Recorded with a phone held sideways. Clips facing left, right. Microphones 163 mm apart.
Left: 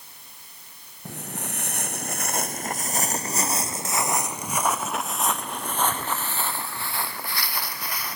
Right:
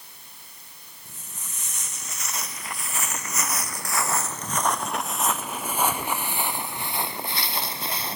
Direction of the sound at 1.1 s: 70° left (ahead or behind).